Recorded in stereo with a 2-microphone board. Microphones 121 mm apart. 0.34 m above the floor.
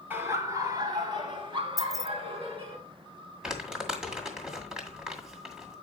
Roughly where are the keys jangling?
Centre.